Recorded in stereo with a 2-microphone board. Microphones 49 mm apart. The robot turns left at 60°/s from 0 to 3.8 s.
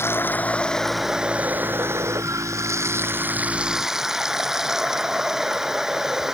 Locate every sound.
0.0 s running water: 55° left; by 6.3 s 170° right